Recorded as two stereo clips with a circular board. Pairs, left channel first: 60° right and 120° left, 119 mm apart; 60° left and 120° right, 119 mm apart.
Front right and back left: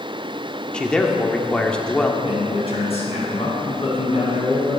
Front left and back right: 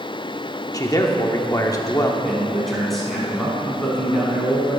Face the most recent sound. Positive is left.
turn(degrees=-30)